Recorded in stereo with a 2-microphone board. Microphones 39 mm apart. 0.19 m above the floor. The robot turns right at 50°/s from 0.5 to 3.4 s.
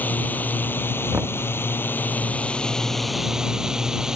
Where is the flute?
I don't hear a flute.